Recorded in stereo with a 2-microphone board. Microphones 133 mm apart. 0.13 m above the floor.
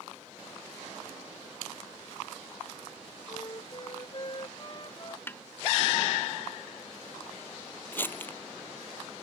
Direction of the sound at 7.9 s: 15° left (ahead or behind).